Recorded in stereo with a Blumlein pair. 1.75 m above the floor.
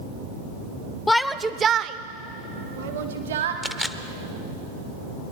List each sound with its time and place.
1.1 s a shout: 10° left, 0.5 m; by 3.5 s 65° right, 1.4 m
3.6 s a camera shutter: 5° left, 0.6 m